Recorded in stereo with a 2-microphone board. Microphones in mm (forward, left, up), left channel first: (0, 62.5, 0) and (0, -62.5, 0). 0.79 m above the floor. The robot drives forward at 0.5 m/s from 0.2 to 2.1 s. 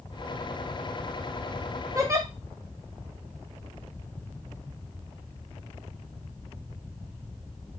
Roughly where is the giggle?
Right.